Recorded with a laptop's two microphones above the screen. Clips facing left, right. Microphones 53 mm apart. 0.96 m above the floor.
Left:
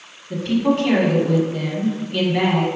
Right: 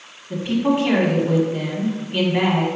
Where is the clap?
I don't hear a clap.